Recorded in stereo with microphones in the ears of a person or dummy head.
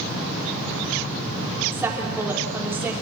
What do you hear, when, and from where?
1.7 s a woman speaking: 10° right (ahead or behind), 4 m